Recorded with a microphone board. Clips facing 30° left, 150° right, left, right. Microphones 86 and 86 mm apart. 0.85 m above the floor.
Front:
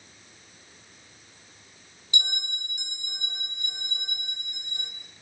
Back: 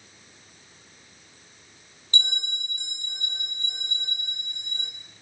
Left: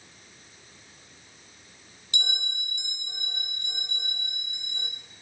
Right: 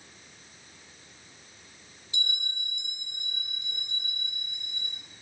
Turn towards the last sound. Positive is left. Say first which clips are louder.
# back 2 dB, left 3 dB
turn(degrees=105)